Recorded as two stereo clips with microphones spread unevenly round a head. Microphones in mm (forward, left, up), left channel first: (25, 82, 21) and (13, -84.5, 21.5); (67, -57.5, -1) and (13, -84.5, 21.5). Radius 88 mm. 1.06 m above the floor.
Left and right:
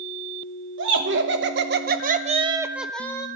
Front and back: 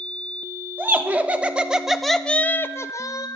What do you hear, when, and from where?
0.8 s laughter: 90° right, 2.5 m; by 3.3 s 15° left, 1.4 m